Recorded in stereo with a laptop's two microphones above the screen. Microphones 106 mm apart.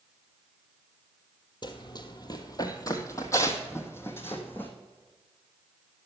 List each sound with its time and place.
1.6 s running footsteps: 45° left (ahead or behind), 1.2 m; by 4.7 s 20° left (ahead or behind), 2 m